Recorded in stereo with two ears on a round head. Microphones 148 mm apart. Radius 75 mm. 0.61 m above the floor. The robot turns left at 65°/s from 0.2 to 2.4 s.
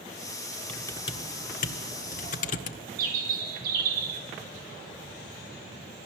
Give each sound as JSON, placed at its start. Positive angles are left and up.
{"t": 0.7, "sound": "typing on a keyboard", "side_deg": 5, "distance_m": 1.7}
{"t": 3.0, "sound": "a bird", "side_deg": -55, "distance_m": 5.5}